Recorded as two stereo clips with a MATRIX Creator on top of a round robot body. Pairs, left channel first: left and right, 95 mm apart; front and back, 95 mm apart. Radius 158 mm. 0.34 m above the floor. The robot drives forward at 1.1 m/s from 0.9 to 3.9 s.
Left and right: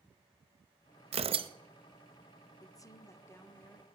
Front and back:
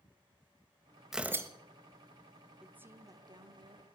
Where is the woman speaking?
105° left, 1.0 m; by 3.9 s 160° left, 1.8 m.